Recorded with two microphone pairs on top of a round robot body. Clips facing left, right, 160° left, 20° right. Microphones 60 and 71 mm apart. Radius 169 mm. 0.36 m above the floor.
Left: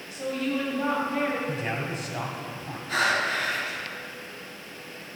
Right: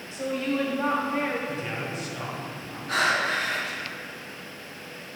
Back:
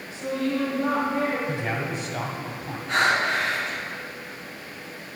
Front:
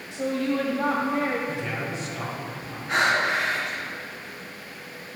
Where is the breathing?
110° right, 3.5 m.